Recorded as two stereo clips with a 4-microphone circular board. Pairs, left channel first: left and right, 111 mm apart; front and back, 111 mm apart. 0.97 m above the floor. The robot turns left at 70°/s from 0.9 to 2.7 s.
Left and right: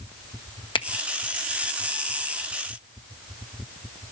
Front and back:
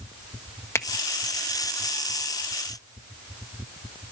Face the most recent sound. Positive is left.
turn(degrees=-65)